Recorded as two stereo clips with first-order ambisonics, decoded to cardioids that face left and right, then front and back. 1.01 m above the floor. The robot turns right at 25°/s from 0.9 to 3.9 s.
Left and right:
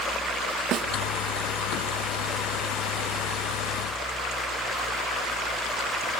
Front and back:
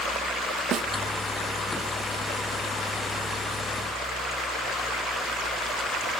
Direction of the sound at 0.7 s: 130° right.